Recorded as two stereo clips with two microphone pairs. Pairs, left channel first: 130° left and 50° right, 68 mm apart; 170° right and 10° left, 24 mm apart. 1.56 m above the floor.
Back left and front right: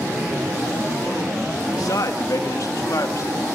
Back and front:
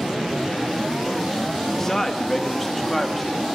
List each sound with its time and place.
1.7 s a man speaking: 120° left, 1.8 m; by 3.5 s 100° left, 2.5 m